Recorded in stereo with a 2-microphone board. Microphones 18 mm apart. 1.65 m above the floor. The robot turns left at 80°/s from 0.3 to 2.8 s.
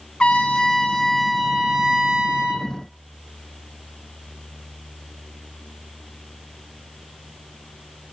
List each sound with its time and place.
0.2 s a trumpet: 85° left, 2.5 m; by 2.7 s 105° right, 2.5 m